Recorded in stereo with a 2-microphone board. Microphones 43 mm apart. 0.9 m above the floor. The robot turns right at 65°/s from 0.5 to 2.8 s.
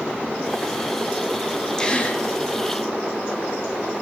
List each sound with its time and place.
1.8 s a gasp: 15° left (ahead or behind), 0.6 m; by 2.2 s 45° left (ahead or behind), 0.6 m